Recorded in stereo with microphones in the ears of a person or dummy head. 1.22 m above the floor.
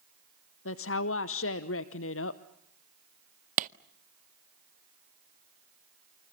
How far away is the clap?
About 0.6 m.